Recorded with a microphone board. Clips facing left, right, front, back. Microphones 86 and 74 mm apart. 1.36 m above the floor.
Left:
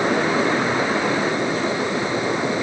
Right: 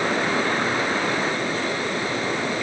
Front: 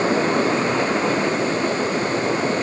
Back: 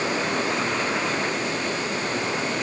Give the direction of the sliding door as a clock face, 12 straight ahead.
No sliding door in this recording.